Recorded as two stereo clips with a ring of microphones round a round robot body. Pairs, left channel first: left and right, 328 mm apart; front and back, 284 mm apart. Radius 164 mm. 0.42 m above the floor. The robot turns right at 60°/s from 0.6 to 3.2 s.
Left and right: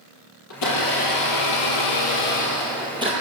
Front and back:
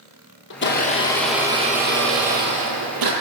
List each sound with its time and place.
0.5 s a blender: 50° left, 5.5 m; by 3.1 s 160° right, 5.5 m